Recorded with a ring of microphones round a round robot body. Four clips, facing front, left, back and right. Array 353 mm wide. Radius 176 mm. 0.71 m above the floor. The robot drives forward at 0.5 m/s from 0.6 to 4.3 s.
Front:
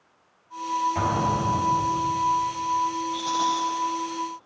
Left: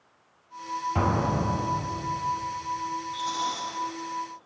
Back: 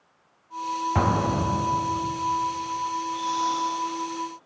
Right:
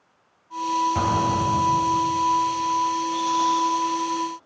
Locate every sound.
0.9 s an explosion: 175° left, 1.2 m
3.1 s a rattle: 25° right, 3.5 m